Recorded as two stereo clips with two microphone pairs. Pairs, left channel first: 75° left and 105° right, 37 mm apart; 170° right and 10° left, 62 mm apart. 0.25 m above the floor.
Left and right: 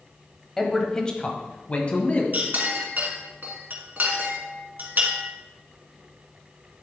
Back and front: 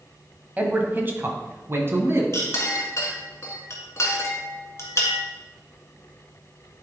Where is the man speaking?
10° left, 1.2 m; by 2.2 s 40° left, 1.8 m.